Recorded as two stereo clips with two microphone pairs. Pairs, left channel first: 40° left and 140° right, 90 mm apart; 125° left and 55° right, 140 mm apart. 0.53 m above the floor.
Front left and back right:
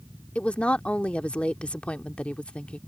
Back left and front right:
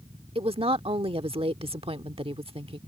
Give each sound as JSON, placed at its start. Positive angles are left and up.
{"t": 0.3, "sound": "a woman speaking", "azimuth_deg": -35}